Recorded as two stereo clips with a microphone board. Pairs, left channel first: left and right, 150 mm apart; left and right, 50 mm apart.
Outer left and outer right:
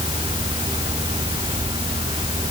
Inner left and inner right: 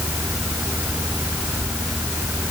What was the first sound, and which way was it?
Only background noise.